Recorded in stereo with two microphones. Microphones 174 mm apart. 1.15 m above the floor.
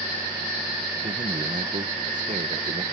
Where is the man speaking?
45° right (ahead or behind).